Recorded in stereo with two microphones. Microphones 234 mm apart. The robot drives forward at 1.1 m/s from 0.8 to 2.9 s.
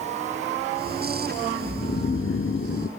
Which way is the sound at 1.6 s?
30° left (ahead or behind).